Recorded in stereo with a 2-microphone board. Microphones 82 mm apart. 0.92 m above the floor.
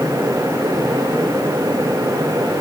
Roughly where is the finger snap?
No finger snap in this recording.